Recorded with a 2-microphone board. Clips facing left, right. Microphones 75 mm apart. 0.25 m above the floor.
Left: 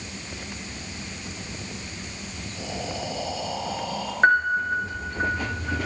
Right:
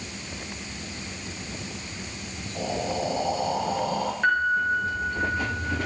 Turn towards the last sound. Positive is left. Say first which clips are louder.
# left 4 dB
turn(degrees=45)  # may be behind; listen again after turning